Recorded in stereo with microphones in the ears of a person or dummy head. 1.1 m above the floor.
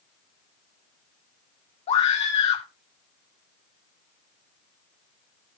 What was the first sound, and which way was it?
A scream, 35° left (ahead or behind).